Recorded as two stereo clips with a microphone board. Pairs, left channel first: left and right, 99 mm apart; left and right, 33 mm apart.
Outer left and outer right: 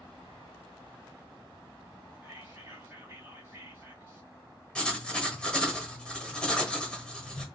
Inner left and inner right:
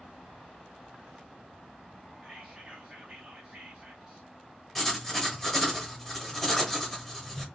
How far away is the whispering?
About 2 m.